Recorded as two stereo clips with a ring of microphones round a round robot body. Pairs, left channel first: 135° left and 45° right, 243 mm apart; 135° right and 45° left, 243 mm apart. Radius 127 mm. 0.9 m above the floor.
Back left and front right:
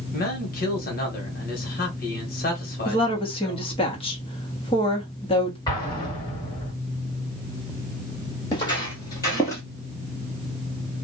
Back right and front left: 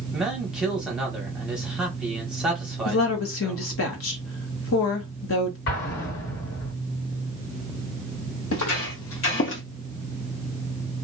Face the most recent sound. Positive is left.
turn(degrees=-150)